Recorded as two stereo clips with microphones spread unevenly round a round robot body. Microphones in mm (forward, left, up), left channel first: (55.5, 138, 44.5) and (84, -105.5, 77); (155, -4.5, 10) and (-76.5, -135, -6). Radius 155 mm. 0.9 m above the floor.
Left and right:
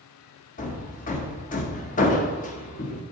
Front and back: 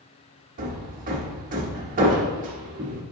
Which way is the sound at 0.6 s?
150° left.